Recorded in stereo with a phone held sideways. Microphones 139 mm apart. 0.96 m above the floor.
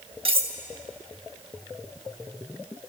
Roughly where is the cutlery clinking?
Right.